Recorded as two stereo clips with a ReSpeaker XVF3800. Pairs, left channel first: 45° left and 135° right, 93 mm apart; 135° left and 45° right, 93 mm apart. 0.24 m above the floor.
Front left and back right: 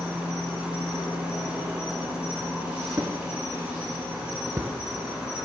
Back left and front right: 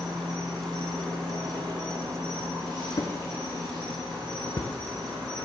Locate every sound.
0.0 s an insect: 60° right, 3.5 m
2.9 s a drawer: 170° left, 0.7 m